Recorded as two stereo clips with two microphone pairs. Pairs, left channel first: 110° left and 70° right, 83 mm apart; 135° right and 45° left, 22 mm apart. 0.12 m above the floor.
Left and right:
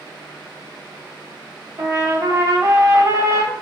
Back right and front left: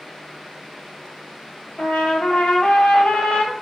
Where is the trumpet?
115° right, 0.9 m.